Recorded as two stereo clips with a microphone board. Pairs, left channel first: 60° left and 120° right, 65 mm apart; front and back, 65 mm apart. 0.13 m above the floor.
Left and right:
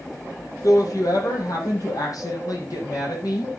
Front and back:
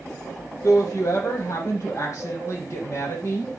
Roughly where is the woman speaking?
Ahead left.